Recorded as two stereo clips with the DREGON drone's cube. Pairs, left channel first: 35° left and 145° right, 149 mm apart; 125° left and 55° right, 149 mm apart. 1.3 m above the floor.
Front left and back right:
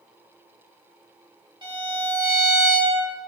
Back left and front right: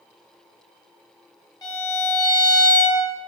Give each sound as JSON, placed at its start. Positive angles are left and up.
{"t": 1.6, "sound": "a violin", "azimuth_deg": 175, "distance_m": 0.8}